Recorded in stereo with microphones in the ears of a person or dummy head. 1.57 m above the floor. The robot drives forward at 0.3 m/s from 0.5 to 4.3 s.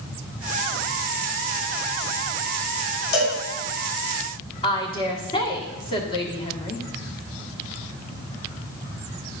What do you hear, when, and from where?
3.1 s a cowbell: 65° left (ahead or behind), 3.5 m
4.6 s a woman speaking: 25° left (ahead or behind), 1.3 m